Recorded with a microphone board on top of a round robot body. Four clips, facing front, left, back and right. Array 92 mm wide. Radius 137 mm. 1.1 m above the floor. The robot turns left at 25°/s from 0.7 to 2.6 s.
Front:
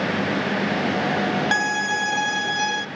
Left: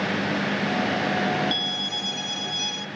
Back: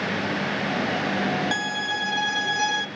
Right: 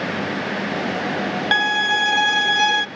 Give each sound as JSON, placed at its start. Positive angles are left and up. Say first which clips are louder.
{"t": 1.5, "sound": "a violin", "louder": "right 13 dB, front 5 dB", "azimuth_deg": -65, "distance_m": 1.0}